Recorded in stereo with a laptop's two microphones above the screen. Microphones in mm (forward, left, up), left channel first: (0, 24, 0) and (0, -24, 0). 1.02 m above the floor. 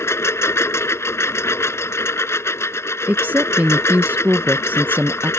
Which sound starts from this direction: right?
A woman speaking, at 3.1 s.